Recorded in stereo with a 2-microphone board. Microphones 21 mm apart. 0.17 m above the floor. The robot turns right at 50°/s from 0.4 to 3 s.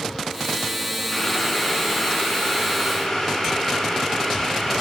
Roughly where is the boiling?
Ahead left.